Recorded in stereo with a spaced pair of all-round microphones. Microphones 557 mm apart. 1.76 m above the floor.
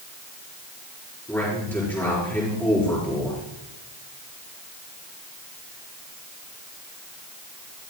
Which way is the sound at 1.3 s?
5° left (ahead or behind).